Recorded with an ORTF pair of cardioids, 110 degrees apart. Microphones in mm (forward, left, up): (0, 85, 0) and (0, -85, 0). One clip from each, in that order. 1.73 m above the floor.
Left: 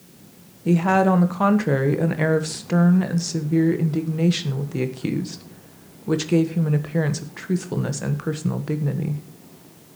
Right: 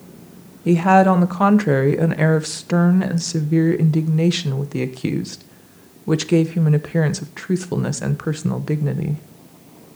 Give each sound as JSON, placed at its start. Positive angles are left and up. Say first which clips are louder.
{"t": 0.7, "sound": "a woman speaking", "louder": "right 5 dB", "azimuth_deg": -20, "distance_m": 1.2}